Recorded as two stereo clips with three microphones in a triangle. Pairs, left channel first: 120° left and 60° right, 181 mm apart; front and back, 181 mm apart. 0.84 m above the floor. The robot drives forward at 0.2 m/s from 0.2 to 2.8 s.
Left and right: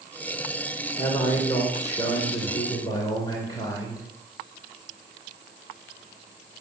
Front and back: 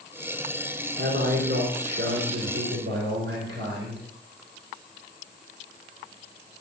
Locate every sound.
1.0 s a man speaking: 170° right, 3 m